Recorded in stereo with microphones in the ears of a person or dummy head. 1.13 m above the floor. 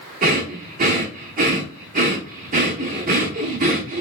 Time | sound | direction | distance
0.2 | breathing | 45° right (ahead or behind) | 0.9 m